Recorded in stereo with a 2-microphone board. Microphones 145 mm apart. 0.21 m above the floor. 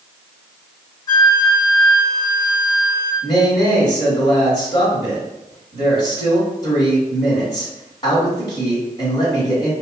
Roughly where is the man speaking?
Left.